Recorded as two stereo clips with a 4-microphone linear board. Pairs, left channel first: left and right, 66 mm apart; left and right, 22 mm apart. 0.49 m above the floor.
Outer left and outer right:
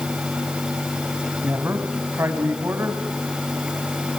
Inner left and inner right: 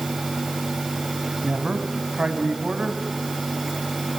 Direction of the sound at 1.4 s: 40° right (ahead or behind).